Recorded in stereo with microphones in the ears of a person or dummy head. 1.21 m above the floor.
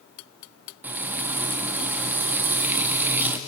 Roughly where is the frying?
Centre.